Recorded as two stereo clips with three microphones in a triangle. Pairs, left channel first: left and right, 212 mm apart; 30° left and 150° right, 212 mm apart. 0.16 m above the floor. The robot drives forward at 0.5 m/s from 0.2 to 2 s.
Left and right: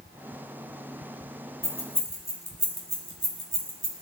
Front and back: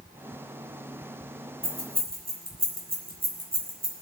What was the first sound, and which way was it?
Keys jangling, 165° left.